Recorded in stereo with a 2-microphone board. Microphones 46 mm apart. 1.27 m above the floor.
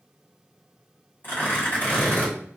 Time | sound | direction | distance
1.2 | tearing paper | 50° left (ahead or behind) | 1.5 m